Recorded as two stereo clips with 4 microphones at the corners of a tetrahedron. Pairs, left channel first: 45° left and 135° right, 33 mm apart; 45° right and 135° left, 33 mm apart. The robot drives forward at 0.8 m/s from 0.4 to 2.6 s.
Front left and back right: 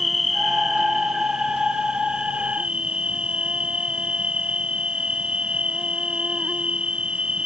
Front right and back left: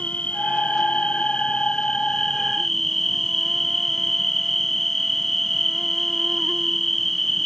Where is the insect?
45° right; by 7.5 s 120° right.